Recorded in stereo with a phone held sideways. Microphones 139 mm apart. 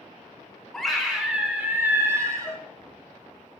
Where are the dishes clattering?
20° left (ahead or behind), 1.2 m.